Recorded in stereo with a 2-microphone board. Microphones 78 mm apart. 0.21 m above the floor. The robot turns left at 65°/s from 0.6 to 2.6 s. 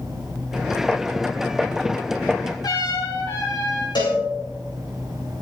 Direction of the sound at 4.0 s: 80° left.